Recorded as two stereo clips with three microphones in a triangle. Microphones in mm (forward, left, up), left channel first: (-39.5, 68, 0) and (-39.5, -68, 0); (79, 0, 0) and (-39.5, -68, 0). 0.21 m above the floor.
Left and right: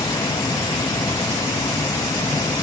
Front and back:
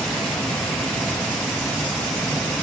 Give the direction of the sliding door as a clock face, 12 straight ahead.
I don't hear a sliding door.